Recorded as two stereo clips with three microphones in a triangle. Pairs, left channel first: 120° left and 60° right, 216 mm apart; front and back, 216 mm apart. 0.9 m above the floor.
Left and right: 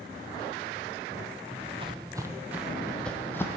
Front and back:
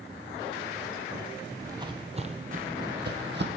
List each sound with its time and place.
1.5 s footsteps: 105° right, 1.3 m; by 3.6 s 165° right, 1.7 m